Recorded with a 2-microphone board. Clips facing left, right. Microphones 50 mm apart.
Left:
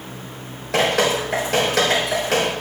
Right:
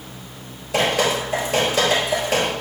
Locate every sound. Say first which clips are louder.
0.7 s dripping: left 1 dB; 80° left, 3.5 m